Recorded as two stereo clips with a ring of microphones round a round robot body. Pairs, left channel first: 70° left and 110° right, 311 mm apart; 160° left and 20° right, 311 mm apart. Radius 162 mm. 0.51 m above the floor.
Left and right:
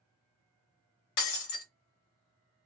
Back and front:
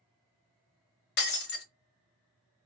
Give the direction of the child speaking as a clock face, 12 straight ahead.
No child speaking in this recording.